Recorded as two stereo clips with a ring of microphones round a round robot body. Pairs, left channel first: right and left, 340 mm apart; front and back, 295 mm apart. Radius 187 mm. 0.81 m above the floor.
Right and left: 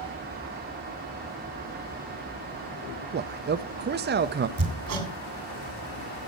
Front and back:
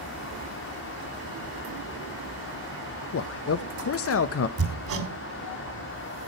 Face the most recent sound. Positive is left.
turn(degrees=140)